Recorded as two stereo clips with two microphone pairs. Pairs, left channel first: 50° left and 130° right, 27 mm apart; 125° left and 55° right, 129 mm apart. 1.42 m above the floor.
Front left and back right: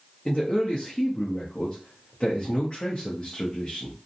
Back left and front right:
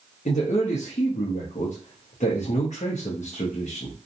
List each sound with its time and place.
0.2 s a man speaking: 110° left, 0.6 m